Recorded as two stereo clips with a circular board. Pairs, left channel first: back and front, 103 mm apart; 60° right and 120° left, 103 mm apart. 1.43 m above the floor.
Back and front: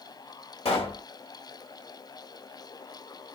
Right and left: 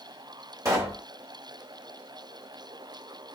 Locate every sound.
0.7 s a pop: 175° right, 1.5 m